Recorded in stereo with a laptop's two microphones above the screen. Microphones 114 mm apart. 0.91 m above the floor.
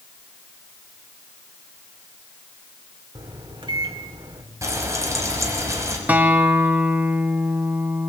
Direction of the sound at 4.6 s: 25° right (ahead or behind).